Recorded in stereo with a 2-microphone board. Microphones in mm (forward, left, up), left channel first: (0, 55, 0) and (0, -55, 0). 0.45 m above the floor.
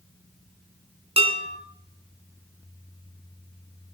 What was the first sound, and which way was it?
Dishes clattering, 65° right (ahead or behind).